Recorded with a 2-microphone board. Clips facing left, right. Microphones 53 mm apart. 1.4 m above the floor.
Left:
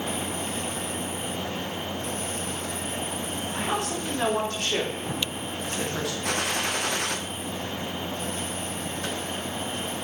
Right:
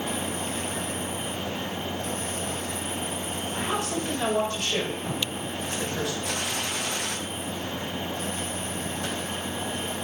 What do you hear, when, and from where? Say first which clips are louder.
3.5 s a woman speaking: even; 50° left (ahead or behind), 4 m; by 6.1 s 85° left, 2.5 m
6.2 s a gunshot: left 3 dB; 60° left (ahead or behind), 0.9 m